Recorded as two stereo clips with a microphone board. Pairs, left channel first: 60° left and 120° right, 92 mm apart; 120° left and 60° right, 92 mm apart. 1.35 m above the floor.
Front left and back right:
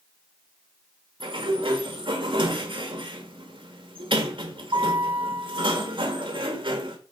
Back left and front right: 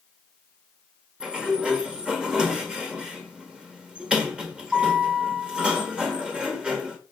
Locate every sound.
1.2 s a sliding door: 140° right, 1.6 m